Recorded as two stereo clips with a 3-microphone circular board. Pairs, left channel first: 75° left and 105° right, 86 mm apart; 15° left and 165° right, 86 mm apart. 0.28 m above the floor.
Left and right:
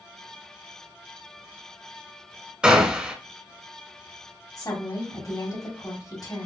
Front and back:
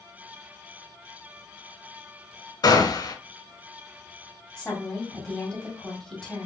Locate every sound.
2.6 s a gunshot: 25° right, 0.7 m
4.6 s a woman speaking: 90° left, 1.5 m